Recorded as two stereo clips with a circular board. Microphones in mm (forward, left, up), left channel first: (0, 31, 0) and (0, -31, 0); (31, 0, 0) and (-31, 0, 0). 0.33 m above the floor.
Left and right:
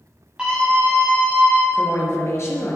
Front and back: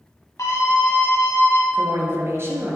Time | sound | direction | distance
0.4 | a scream | 20° right | 2.5 m
1.7 | a woman speaking | 130° left | 4.5 m